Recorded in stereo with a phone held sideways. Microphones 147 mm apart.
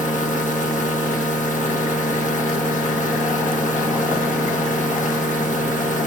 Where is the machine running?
55° left (ahead or behind), 1.4 m.